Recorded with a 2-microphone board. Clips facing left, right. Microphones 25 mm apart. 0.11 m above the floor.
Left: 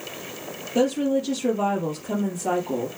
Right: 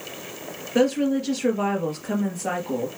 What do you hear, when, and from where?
0.8 s a woman speaking: 45° right (ahead or behind), 2.5 m